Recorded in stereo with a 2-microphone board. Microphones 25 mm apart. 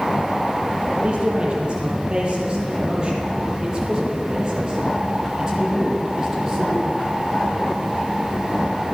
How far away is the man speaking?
About 7 m.